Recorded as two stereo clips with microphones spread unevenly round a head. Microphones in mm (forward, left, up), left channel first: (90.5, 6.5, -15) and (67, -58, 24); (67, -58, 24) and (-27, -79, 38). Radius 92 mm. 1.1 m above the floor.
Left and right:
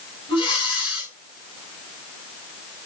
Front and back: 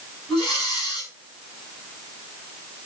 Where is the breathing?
100° left, 7 m.